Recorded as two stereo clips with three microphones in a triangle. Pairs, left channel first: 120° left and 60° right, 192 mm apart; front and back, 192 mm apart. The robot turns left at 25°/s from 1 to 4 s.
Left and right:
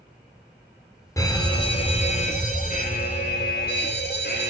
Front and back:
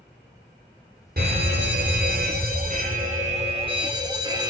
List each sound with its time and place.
1.2 s a fire alarm: 170° right, 3 m; by 4.5 s 120° left, 3 m